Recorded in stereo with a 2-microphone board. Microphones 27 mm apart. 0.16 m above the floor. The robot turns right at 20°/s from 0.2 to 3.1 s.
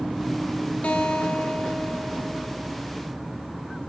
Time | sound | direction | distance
0.8 | a guitar | 115° left | 1.4 m